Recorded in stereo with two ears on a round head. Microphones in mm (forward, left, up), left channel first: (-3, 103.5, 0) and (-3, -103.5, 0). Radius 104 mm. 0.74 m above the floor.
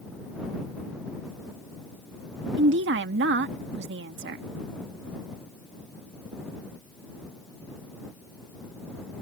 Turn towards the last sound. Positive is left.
turn(degrees=-50)  # may be behind; listen again after turning